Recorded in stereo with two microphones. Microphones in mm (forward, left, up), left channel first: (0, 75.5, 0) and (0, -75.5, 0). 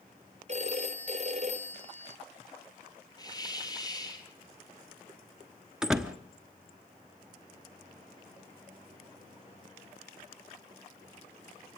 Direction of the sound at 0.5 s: 45° right (ahead or behind).